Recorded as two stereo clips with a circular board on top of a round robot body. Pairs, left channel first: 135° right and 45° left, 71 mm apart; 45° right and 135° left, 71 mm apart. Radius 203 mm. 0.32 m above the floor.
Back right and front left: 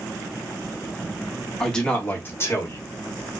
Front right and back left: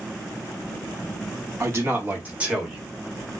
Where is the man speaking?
145° left, 1.3 m; by 2.9 s 145° right, 1.5 m.